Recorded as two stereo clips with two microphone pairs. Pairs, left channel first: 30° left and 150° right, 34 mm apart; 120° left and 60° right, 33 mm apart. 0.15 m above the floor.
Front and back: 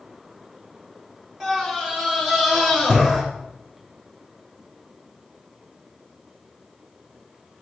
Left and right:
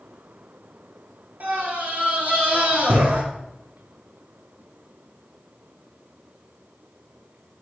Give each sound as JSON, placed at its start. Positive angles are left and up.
{"t": 1.4, "sound": "a scream", "azimuth_deg": -80, "distance_m": 2.0}